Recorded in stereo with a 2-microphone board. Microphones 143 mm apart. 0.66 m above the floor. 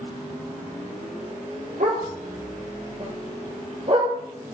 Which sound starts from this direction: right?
A dog barking, at 1.8 s.